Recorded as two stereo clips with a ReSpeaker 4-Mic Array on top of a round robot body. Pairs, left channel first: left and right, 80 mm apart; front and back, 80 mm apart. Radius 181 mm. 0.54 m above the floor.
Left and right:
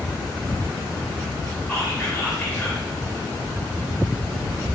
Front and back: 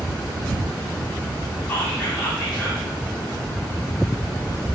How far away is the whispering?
About 1.4 m.